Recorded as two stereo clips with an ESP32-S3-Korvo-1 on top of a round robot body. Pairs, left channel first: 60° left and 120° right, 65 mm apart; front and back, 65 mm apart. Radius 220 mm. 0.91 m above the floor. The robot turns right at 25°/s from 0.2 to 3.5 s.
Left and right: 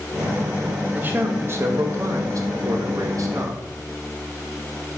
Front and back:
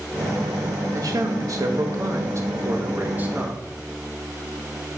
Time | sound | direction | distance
0.9 | a man speaking | straight behind | 0.9 m